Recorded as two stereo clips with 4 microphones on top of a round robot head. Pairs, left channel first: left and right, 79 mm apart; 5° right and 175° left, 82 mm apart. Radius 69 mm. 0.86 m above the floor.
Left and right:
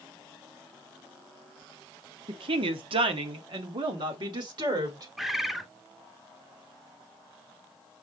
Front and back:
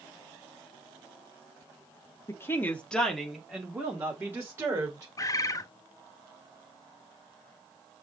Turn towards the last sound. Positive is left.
turn(degrees=-5)